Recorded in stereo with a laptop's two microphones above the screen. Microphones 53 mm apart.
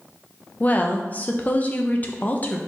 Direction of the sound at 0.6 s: 30° left (ahead or behind).